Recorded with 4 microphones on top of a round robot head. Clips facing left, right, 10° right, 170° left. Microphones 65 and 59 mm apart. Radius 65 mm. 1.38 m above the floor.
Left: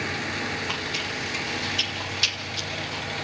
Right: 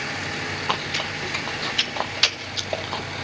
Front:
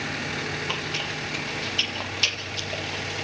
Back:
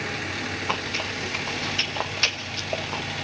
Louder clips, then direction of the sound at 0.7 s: Right 4 dB, back 2 dB; 130° right.